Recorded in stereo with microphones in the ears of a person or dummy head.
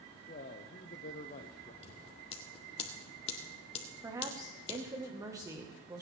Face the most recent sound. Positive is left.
turn(degrees=-15)  # may be behind; listen again after turning